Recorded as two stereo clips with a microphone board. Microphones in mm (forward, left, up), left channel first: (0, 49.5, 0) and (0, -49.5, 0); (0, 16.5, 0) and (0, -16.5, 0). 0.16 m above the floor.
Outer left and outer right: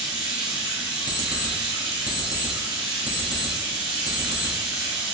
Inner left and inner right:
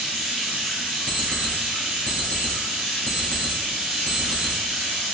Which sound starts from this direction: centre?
Running water, at 0.0 s.